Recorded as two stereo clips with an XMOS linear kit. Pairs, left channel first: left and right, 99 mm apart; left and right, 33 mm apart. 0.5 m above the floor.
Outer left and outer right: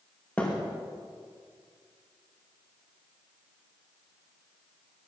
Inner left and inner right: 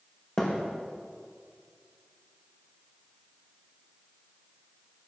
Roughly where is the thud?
Centre.